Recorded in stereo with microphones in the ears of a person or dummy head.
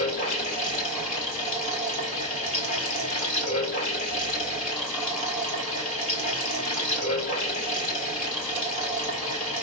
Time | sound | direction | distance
0.0 | running water | 40° left (ahead or behind) | 2.5 m